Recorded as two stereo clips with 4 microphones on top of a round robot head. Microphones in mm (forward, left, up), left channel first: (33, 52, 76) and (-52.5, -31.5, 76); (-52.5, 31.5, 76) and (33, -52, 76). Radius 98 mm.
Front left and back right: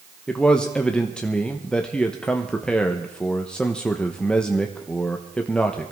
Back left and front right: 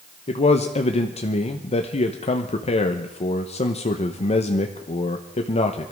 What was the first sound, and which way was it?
A man speaking, 125° left.